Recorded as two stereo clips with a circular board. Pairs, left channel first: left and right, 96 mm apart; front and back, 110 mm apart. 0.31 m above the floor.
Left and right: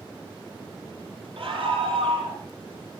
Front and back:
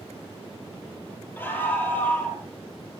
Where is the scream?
70° right, 6 m; by 2.4 s 75° right, 7.5 m.